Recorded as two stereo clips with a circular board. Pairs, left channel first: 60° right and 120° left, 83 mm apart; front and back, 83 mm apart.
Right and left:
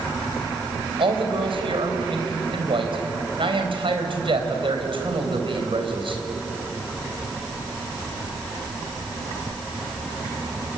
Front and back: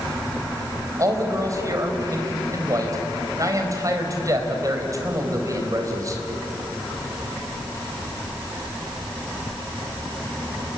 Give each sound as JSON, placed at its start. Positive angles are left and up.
{"t": 1.0, "sound": "a man speaking", "azimuth_deg": 130, "distance_m": 4.0}